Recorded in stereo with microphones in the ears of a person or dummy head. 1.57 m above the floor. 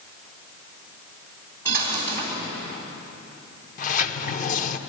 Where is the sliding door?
45° left (ahead or behind), 0.8 m.